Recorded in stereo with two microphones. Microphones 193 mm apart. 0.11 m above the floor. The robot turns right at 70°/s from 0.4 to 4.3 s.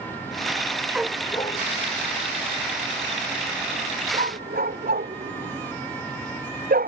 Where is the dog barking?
5° right (ahead or behind); by 6.9 s 50° right (ahead or behind).